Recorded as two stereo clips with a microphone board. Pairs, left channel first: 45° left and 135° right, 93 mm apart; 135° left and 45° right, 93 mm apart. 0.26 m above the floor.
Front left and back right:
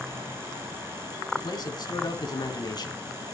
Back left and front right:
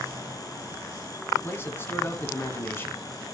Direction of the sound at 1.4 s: 75° left.